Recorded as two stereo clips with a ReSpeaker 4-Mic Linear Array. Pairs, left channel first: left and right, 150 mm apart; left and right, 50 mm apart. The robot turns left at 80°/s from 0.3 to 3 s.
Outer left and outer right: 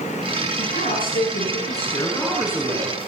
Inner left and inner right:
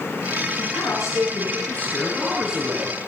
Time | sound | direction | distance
0.6 | a man speaking | 140° left | 6.5 m